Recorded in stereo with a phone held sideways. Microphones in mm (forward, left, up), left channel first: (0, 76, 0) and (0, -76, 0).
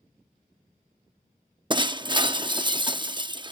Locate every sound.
1.7 s breaking glass: 30° right (ahead or behind)